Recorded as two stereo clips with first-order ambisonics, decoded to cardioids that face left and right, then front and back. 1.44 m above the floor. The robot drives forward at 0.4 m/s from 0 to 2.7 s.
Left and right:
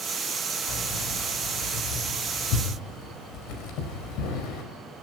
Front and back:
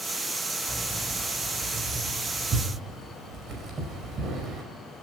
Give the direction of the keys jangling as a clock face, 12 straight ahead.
8 o'clock.